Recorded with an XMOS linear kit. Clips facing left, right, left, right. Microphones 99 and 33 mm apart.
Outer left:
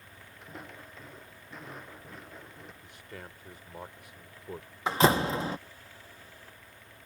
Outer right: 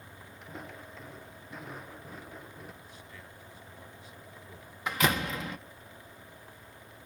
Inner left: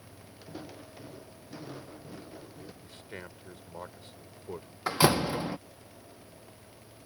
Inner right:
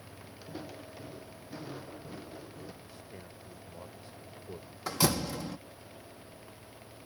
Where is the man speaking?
65° left (ahead or behind).